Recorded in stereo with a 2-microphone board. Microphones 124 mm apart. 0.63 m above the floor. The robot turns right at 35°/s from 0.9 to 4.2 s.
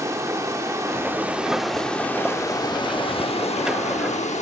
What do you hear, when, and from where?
0.0 s running water: 25° right, 0.9 m; by 4.4 s 90° left, 0.9 m